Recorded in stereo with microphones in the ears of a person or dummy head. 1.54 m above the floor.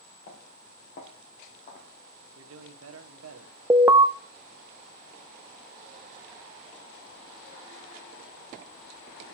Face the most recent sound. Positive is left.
turn(degrees=-10)  # may be behind; listen again after turning